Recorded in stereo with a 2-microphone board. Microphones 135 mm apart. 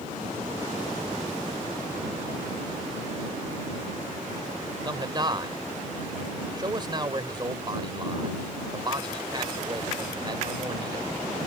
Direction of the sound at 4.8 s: 30° right (ahead or behind).